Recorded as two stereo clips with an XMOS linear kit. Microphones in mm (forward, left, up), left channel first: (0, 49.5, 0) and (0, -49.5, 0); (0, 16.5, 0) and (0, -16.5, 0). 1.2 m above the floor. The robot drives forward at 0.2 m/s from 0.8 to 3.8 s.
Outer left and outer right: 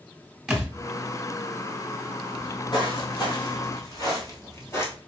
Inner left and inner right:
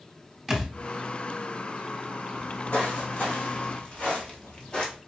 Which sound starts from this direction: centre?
A thud, at 0.5 s.